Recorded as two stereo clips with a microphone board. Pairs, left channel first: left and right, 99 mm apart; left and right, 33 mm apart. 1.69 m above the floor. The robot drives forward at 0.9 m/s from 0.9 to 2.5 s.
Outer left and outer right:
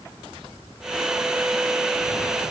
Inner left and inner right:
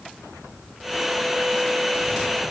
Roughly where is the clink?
I don't hear a clink.